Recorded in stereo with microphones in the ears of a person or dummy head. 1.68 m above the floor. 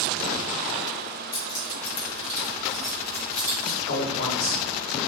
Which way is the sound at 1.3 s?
55° left (ahead or behind).